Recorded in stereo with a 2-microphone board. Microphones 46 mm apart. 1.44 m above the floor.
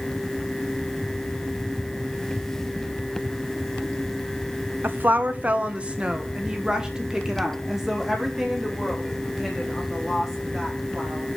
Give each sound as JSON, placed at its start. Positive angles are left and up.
{"t": 4.8, "sound": "a woman speaking", "side_deg": -50, "distance_m": 0.9}